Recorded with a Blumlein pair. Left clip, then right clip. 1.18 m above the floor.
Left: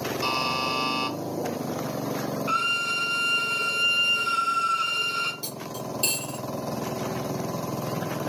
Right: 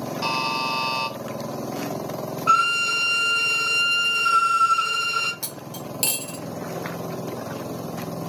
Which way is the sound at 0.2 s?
15° right.